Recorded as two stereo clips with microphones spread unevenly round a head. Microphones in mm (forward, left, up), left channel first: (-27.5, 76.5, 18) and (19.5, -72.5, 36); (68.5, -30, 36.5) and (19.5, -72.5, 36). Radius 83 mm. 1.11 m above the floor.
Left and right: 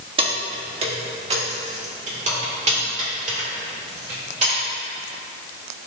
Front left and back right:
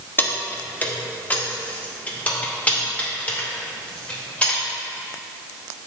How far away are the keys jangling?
About 1.2 m.